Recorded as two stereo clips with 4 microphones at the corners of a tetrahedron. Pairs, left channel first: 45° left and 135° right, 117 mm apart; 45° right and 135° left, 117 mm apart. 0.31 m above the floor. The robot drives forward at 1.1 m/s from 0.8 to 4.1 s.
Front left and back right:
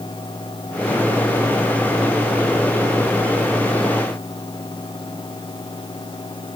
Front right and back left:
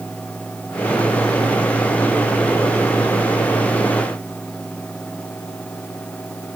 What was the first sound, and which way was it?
Only background noise.